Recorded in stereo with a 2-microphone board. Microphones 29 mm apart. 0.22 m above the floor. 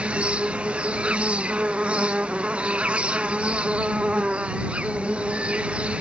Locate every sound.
0.0 s an insect: 40° right (ahead or behind)